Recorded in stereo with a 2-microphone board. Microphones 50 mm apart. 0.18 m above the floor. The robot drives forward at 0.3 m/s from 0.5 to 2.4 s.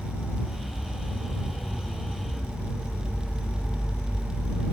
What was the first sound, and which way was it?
An insect, 50° left (ahead or behind).